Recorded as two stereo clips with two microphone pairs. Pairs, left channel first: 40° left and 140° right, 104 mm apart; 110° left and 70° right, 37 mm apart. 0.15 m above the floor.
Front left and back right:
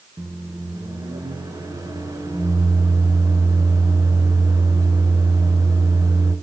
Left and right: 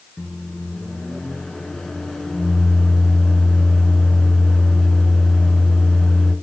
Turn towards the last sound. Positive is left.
turn(degrees=-175)